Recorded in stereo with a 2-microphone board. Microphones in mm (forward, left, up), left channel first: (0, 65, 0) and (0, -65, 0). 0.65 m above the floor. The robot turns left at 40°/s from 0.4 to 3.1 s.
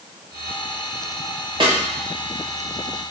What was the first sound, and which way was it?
A snare drum, 40° right (ahead or behind).